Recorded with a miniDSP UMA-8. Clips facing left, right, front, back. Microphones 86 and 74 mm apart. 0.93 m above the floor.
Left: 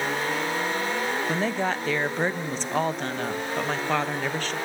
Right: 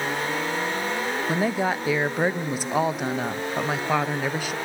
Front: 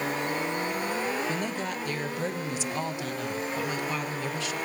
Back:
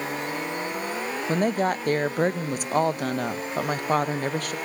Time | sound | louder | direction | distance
1.3 | a woman speaking | right 5 dB, back 8 dB | 170° right | 0.5 m